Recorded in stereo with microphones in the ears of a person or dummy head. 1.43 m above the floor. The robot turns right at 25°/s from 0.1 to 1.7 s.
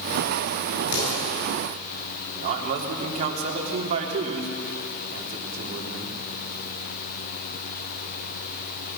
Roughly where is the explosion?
Left.